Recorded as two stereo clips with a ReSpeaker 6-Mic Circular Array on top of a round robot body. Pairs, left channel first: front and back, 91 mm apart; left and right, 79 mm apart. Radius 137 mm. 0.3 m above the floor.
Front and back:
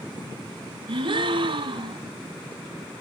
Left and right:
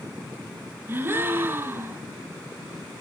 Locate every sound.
0.9 s a gasp: 155° right, 1.3 m